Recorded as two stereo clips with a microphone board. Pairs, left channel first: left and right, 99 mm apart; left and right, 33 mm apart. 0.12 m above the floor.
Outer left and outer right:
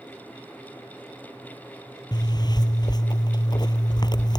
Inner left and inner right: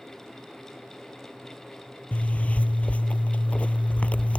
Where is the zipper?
45° left (ahead or behind).